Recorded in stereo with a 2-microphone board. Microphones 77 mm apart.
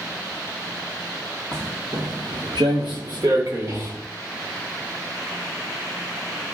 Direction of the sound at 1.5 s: 35° right (ahead or behind).